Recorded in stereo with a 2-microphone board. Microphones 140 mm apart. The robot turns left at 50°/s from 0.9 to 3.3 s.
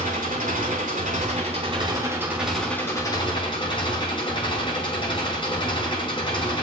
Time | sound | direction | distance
0.0 | an engine running | 100° right | 6 m